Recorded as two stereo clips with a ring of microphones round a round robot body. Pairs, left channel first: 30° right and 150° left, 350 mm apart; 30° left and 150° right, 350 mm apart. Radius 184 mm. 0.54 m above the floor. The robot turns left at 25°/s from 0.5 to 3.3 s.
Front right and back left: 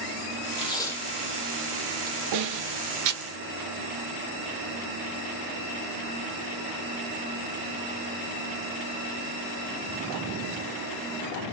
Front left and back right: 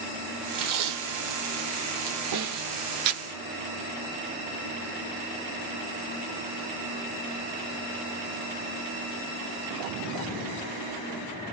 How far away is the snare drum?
About 0.6 m.